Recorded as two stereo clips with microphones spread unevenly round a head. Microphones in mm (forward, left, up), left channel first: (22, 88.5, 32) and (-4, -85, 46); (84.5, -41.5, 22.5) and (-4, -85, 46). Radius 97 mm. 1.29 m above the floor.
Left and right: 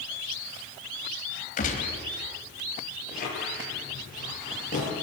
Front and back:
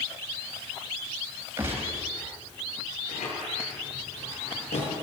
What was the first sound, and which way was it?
A gunshot, 130° left.